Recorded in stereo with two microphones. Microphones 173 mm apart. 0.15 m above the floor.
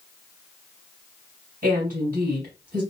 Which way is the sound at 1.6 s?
45° right (ahead or behind).